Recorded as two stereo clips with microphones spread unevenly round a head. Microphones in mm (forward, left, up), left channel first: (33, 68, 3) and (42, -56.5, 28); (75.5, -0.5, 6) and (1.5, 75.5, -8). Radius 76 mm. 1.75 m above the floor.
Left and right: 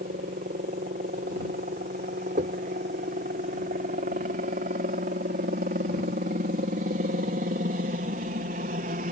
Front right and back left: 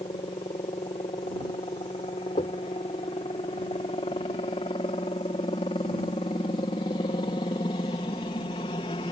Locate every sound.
0.0 s a helicopter: 95° right
2.4 s knocking: 85° right